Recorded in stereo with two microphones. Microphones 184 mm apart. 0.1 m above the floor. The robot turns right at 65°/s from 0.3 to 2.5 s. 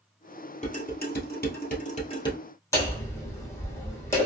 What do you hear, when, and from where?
0.6 s dishes clattering: 40° left (ahead or behind), 1.6 m; by 2.4 s 15° left (ahead or behind), 1.6 m
2.7 s hammering: 15° left (ahead or behind), 1.7 m